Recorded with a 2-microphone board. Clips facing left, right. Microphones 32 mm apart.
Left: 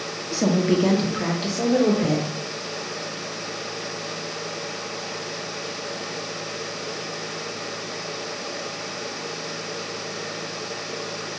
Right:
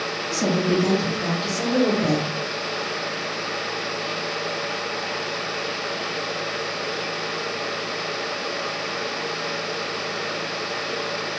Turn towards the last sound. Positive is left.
turn(degrees=30)  # may be behind; listen again after turning